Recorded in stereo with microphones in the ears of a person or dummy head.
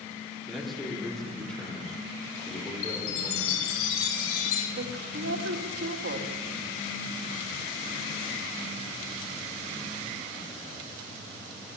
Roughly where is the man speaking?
Centre.